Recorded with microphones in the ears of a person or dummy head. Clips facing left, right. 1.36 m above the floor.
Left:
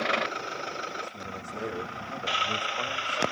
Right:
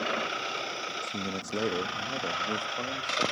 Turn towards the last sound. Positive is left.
turn(degrees=-20)  # may be behind; listen again after turning